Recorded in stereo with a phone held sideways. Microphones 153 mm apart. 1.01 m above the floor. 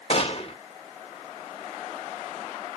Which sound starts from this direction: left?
A gunshot, at 0.1 s.